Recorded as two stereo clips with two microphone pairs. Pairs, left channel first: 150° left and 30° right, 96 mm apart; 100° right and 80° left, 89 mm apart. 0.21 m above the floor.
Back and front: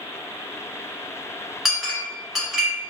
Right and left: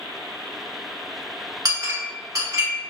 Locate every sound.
1.6 s a clink: 60° left, 0.9 m